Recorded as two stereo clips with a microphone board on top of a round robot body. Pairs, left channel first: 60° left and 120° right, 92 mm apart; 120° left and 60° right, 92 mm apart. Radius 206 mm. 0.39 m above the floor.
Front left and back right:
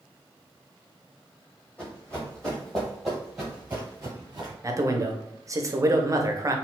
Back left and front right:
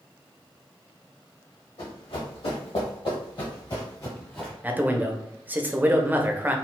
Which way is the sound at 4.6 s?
115° right.